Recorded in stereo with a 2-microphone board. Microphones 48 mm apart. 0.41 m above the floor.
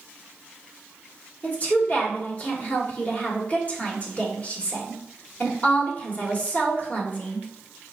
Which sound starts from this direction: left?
A woman speaking, at 1.4 s.